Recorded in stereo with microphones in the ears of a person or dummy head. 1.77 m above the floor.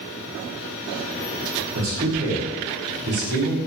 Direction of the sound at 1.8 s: 45° right (ahead or behind).